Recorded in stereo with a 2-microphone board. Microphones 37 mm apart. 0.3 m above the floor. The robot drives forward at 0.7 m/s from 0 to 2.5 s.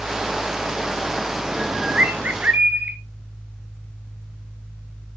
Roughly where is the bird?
Right.